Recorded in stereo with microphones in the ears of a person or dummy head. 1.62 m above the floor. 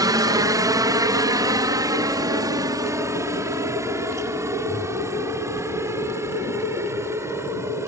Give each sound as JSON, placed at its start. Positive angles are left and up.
{"t": 0.0, "sound": "a helicopter", "side_deg": -15}